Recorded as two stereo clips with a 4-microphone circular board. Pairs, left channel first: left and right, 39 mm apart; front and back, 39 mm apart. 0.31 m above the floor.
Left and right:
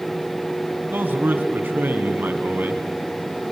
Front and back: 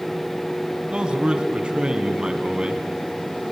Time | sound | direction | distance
0.9 | a man speaking | 115° right | 2.5 m